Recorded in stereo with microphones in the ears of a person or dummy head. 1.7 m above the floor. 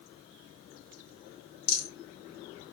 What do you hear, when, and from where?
1.7 s a rattle: 80° left, 3 m